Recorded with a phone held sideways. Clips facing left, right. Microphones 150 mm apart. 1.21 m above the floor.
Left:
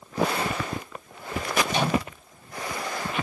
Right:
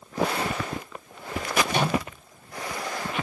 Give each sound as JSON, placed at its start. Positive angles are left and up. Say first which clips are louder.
{"t": 1.7, "sound": "a microwave", "louder": "left 1 dB", "side_deg": -50, "distance_m": 2.5}